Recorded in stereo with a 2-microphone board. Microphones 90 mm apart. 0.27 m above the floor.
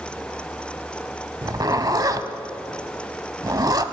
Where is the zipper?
45° right (ahead or behind), 0.6 m.